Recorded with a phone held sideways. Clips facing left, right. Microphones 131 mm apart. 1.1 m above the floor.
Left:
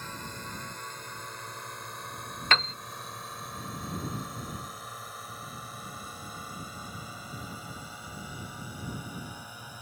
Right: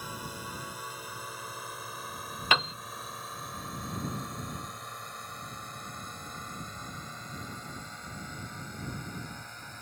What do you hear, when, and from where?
0.0 s a drone: 10° right (ahead or behind); by 9.8 s 10° left (ahead or behind)
2.5 s a piano: 10° right (ahead or behind)